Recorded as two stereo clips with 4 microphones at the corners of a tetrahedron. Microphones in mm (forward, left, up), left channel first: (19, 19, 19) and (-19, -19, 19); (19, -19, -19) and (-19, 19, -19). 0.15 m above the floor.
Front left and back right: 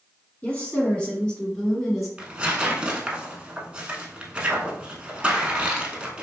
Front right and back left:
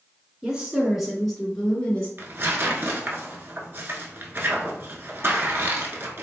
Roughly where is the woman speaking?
Left.